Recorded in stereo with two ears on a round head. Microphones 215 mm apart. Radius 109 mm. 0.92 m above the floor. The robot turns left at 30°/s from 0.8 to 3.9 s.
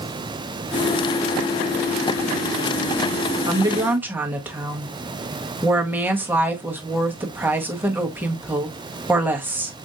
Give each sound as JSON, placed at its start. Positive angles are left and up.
{"t": 3.5, "sound": "a woman speaking", "side_deg": -20, "distance_m": 1.0}